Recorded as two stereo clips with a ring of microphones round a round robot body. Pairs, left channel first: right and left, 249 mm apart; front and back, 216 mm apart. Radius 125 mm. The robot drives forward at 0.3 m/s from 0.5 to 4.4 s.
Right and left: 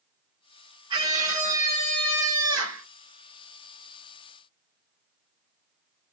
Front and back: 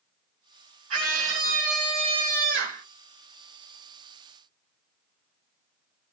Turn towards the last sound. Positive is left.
turn(degrees=170)